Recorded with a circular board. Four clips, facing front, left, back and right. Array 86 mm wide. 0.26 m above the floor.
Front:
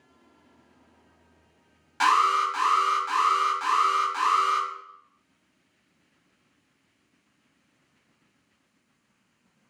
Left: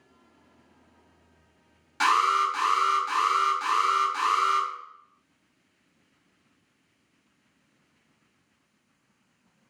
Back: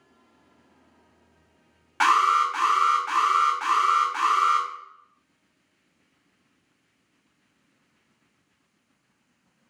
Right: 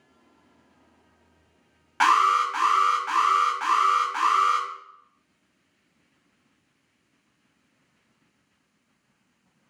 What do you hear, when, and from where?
2.0 s an alarm: 120° right, 1.1 m